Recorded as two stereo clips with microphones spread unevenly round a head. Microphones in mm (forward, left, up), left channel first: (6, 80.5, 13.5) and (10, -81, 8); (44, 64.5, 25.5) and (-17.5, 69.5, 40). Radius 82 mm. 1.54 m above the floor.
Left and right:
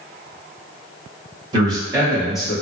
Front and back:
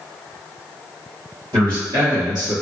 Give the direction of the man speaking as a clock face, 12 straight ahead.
5 o'clock.